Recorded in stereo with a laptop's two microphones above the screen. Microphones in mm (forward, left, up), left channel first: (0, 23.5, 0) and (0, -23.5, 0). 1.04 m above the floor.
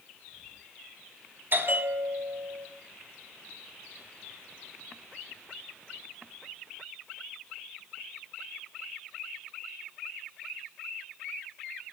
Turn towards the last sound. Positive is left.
turn(degrees=-45)  # may be behind; listen again after turning